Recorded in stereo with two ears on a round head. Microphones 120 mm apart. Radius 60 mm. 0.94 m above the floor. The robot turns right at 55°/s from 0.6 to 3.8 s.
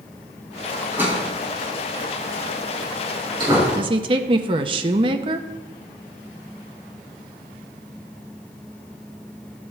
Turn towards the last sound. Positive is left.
turn(degrees=-40)  # may be behind; listen again after turning